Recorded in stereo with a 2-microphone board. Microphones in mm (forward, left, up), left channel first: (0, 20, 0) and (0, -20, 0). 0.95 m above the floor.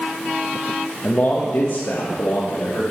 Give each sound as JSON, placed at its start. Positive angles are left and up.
{"t": 1.0, "sound": "a man speaking", "side_deg": 35, "distance_m": 1.0}